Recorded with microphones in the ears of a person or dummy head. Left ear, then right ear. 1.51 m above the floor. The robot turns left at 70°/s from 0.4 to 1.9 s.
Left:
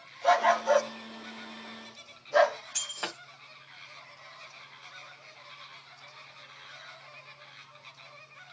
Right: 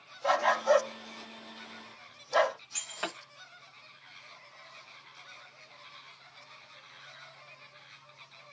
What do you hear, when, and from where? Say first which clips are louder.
0.2 s a dog barking: left 2 dB; centre (ahead or behind), 1.1 m; by 2.6 s 25° right (ahead or behind), 1.1 m
2.7 s breaking glass: left 2 dB; 5° right (ahead or behind), 0.9 m